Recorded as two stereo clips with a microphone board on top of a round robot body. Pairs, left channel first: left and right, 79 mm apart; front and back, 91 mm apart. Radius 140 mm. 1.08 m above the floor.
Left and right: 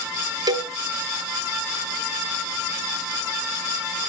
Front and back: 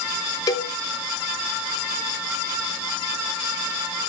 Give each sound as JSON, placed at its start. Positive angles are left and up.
{"t": 0.5, "sound": "a cowbell", "azimuth_deg": -50, "distance_m": 0.7}